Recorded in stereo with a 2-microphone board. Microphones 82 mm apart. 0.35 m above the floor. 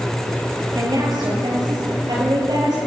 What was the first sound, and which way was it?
A woman speaking, 60° right (ahead or behind).